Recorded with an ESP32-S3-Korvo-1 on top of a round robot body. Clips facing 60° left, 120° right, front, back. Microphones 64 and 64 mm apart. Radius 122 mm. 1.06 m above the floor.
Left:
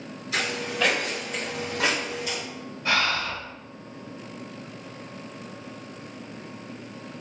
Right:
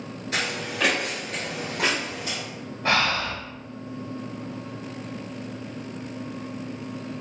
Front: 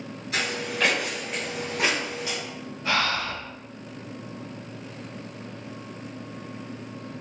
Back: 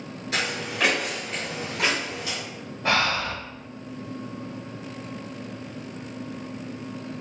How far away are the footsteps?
About 1.2 m.